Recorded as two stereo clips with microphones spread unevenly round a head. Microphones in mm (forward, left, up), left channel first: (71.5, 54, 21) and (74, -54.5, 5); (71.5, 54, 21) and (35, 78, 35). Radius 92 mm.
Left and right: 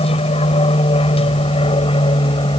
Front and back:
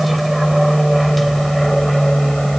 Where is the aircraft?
60° left; by 2.6 s 50° left.